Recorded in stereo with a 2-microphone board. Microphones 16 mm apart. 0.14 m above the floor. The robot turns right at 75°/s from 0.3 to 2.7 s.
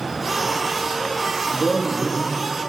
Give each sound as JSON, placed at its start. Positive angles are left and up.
{"t": 1.5, "sound": "a man speaking", "azimuth_deg": 80, "distance_m": 6.0}